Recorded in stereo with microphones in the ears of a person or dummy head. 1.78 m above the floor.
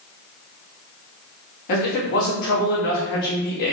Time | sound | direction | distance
1.7 | a man speaking | 40° left (ahead or behind) | 1.1 m